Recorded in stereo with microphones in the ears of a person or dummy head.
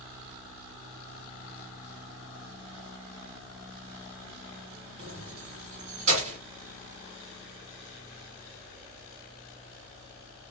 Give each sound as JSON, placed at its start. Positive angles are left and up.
{"t": 5.0, "sound": "keys jangling", "side_deg": -40, "distance_m": 0.9}